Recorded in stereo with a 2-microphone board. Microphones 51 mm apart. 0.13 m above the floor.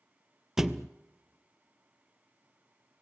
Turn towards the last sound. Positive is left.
turn(degrees=-5)  # may be behind; listen again after turning